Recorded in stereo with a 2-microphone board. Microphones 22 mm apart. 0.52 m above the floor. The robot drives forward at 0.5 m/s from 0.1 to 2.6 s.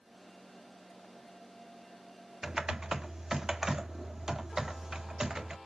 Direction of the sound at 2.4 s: 25° right (ahead or behind).